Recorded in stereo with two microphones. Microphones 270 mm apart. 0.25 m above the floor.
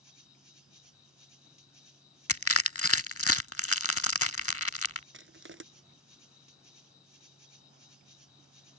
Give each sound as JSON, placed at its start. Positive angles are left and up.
{"t": 0.0, "sound": "an insect", "side_deg": 65}
{"t": 2.3, "sound": "crushing", "side_deg": 55}
{"t": 5.1, "sound": "crushing", "side_deg": -45}